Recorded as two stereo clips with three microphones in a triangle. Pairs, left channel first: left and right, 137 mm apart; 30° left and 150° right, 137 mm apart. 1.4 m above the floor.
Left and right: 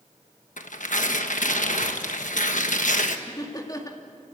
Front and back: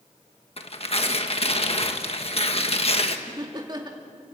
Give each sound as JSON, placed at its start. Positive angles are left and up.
{"t": 0.6, "sound": "tearing paper", "azimuth_deg": 70, "distance_m": 1.3}
{"t": 3.3, "sound": "laughter", "azimuth_deg": 155, "distance_m": 2.0}